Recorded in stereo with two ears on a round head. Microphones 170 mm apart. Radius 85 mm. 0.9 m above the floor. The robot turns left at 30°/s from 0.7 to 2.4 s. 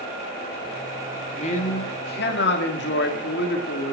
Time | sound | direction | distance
1.3 | a man speaking | 145° left | 1.8 m